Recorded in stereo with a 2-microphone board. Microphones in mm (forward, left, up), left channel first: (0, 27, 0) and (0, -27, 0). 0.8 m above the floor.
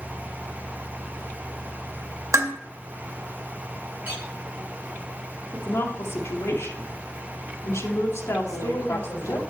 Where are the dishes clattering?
60° right (ahead or behind), 1.7 m.